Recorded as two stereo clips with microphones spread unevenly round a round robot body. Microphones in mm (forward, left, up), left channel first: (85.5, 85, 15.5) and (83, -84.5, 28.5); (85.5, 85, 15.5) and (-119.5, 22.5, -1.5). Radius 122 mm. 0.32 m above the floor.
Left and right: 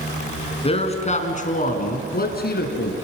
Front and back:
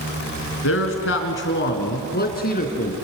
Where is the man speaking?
35° left, 4 m; by 2.9 s 70° left, 4.5 m.